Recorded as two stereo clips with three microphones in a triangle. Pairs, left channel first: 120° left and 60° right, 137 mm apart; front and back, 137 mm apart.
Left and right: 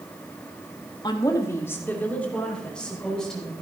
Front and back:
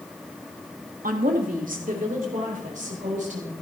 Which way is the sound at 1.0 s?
175° left.